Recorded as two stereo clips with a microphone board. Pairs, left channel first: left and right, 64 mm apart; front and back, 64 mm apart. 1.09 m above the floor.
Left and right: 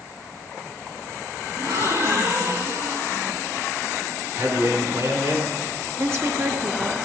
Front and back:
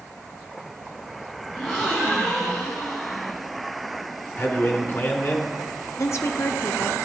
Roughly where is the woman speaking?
Ahead right.